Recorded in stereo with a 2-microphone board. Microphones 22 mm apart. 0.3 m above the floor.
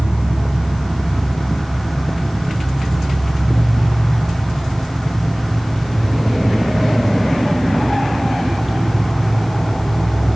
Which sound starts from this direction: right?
An insect, at 0.0 s.